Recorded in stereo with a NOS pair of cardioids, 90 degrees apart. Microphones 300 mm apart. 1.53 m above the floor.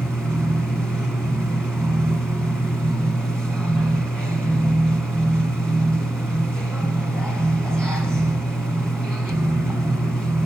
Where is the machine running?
Straight ahead, 1.9 m.